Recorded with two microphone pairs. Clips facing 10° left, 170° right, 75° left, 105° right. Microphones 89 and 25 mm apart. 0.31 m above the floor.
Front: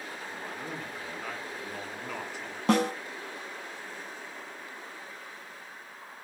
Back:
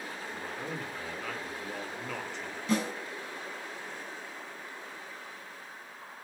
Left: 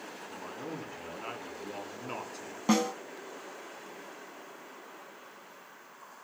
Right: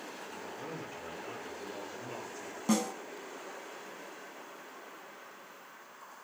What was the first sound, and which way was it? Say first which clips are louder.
A man speaking: back 1 dB, left 3 dB; 90° left.